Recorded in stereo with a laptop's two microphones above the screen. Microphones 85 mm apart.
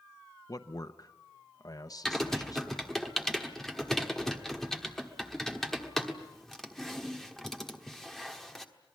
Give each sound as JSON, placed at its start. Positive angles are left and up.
{"t": 0.5, "sound": "a man speaking", "side_deg": 50, "distance_m": 0.8}
{"t": 2.0, "sound": "typing on a keyboard", "side_deg": 5, "distance_m": 1.3}